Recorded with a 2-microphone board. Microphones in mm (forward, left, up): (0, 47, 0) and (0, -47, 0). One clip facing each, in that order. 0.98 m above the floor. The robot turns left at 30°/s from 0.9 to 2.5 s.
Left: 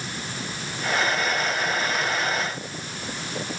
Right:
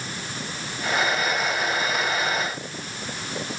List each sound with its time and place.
Only background noise.